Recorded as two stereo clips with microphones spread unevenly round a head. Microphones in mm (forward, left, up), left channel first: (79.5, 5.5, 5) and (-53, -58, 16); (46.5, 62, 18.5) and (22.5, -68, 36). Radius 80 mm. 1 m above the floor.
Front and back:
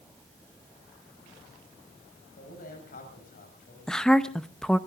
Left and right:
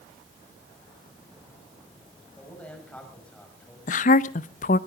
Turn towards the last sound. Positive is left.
turn(degrees=110)